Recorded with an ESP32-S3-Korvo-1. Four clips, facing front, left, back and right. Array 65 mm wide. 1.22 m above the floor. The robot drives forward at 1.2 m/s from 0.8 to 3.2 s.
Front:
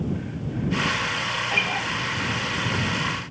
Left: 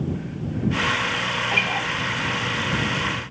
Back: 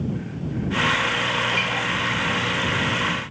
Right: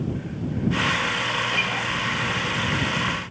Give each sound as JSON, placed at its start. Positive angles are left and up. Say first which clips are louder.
{"t": 1.5, "sound": "a guitar", "louder": "left 2 dB, back 1 dB", "azimuth_deg": 65, "distance_m": 3.0}